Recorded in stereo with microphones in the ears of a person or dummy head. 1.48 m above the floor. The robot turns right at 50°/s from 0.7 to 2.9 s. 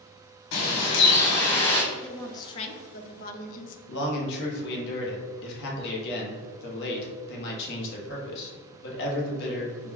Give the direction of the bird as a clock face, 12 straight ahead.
9 o'clock.